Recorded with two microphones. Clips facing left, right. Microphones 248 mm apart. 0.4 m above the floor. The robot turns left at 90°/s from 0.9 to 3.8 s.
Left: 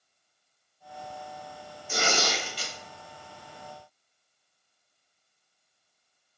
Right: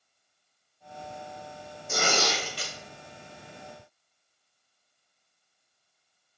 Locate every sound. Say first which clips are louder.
1.9 s tearing paper: right 1 dB; 50° right, 1.2 m; by 2.7 s 125° right, 1.2 m